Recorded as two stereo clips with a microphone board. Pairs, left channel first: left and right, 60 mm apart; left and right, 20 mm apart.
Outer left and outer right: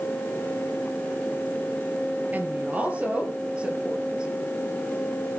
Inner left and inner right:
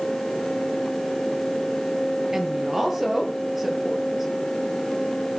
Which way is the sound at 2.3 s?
25° right (ahead or behind).